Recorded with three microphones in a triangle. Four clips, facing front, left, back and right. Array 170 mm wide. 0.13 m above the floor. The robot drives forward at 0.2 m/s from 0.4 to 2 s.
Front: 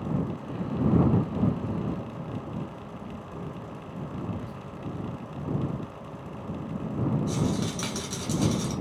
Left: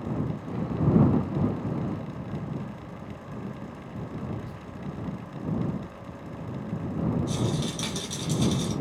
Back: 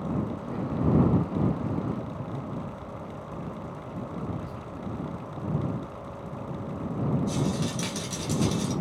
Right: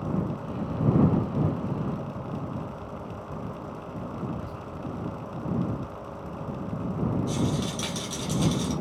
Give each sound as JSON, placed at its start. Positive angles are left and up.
{"t": 4.3, "sound": "whispering", "azimuth_deg": -115, "distance_m": 1.1}
{"t": 7.3, "sound": "a rattle", "azimuth_deg": -35, "distance_m": 1.4}